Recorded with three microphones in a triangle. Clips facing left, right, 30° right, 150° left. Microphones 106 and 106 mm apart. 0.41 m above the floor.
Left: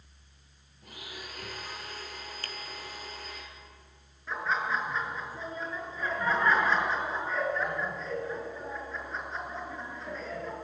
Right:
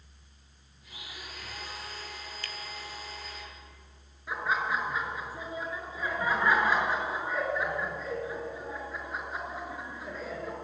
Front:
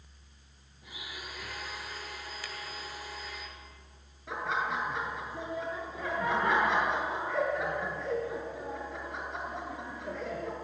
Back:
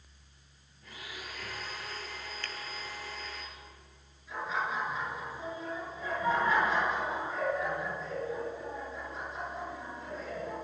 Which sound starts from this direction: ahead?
Laughter, at 4.3 s.